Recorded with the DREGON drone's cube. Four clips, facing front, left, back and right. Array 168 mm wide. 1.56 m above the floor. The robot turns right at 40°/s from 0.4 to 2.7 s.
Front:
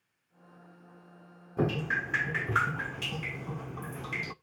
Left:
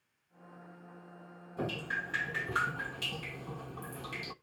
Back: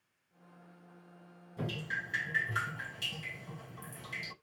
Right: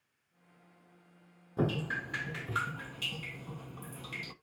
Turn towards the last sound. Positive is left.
turn(degrees=15)